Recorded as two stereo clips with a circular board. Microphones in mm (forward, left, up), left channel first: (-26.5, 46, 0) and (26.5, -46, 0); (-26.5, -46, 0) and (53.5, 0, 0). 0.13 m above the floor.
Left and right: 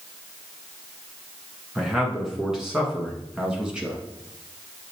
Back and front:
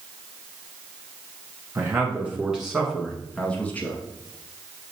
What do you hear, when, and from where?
1.8 s a man speaking: 20° left, 1.6 m; by 4.0 s 130° right, 1.6 m